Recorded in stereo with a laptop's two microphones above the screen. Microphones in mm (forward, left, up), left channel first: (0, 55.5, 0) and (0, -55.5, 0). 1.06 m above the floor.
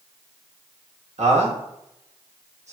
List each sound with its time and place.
1.2 s a man speaking: 85° right, 1.2 m